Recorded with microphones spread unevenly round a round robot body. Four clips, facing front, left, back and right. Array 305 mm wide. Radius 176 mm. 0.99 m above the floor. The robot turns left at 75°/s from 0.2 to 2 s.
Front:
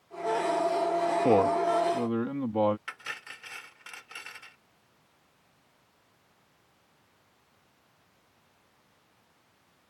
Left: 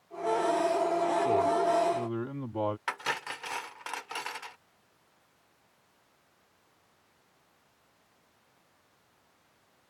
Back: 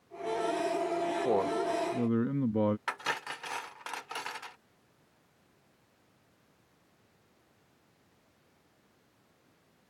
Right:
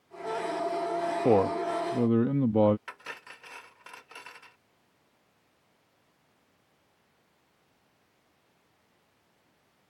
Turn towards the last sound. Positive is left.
turn(degrees=115)